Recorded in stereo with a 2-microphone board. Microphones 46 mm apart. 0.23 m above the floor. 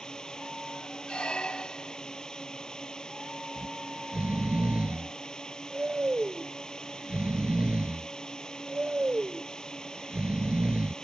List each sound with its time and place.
0.0 s a drone: 20° left (ahead or behind)
1.1 s a squeak: 25° left (ahead or behind)
3.6 s snoring: 30° right (ahead or behind)